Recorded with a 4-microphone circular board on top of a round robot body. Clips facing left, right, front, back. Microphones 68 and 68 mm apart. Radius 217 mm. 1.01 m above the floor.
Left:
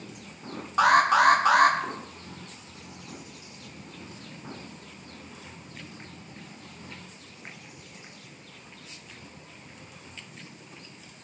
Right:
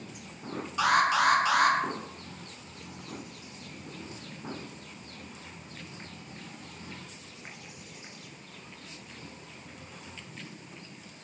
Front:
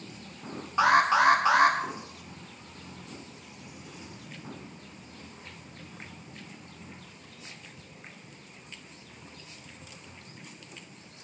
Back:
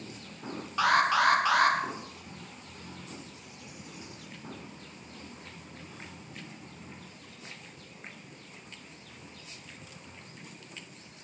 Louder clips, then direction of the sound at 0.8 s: Left 5 dB, front 3 dB; 60° left.